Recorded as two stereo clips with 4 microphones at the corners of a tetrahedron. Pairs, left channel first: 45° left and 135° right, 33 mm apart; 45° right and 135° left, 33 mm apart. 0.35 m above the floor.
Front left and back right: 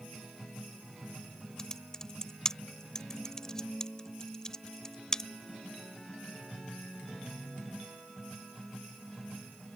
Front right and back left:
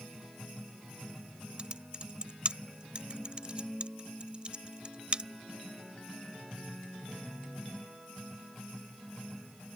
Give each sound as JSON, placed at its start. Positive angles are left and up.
{"t": 1.6, "sound": "typing on a keyboard", "azimuth_deg": 105}